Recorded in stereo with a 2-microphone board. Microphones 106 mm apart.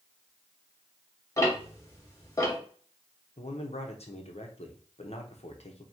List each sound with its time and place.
1.4 s ticking: 30° left (ahead or behind), 1.3 m
3.4 s a man speaking: 70° left (ahead or behind), 0.8 m